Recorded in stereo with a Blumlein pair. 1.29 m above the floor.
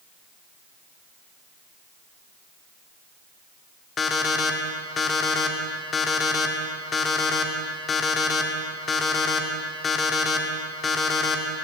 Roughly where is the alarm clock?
Ahead.